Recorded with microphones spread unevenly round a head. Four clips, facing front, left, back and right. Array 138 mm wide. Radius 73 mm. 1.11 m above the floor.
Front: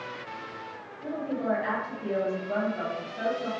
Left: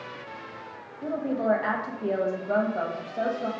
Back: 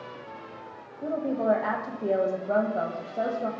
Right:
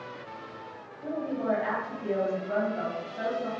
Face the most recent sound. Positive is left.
turn(degrees=155)